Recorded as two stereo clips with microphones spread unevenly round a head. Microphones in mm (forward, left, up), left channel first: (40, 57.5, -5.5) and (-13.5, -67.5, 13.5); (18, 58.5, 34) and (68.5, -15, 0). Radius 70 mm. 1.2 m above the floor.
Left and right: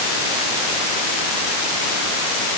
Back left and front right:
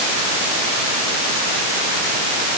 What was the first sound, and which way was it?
Only background noise.